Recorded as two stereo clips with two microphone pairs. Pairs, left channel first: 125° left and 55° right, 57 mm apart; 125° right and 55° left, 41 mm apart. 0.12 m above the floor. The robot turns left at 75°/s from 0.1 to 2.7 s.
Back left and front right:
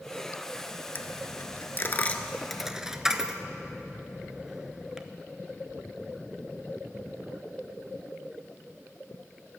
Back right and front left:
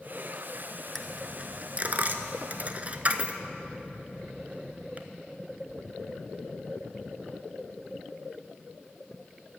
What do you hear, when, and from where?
0.9 s a dropped coin: 150° left, 0.5 m; by 5.1 s 20° left, 0.5 m